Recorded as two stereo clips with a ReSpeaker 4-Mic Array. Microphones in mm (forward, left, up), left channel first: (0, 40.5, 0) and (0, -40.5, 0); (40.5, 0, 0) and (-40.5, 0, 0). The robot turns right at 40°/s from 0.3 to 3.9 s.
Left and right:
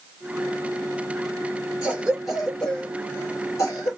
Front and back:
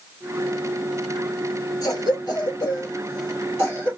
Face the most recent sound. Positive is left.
turn(degrees=75)